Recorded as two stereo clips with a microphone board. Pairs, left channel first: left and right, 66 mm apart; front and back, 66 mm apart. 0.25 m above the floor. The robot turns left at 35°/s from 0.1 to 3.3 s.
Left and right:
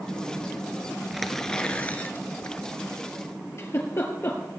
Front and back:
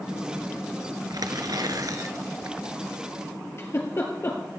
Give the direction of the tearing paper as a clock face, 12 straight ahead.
6 o'clock.